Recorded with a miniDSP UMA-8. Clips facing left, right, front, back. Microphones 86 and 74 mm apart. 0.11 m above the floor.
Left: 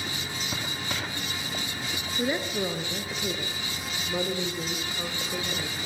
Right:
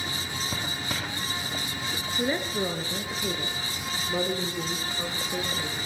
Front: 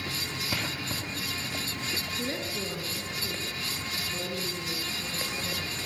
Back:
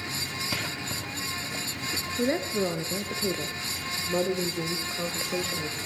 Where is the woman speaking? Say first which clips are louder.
Even, back 11 dB; straight behind, 1.6 m.